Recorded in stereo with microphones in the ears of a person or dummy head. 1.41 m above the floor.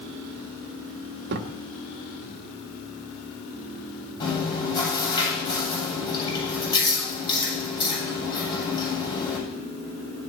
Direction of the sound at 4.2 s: 30° left (ahead or behind).